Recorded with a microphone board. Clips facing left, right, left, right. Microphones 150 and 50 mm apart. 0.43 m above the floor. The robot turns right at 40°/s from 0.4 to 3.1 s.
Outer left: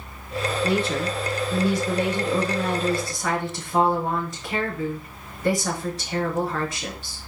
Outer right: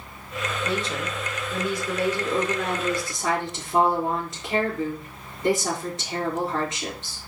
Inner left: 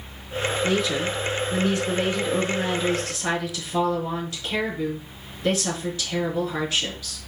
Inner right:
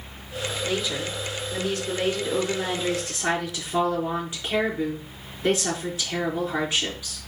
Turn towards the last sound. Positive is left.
turn(degrees=-160)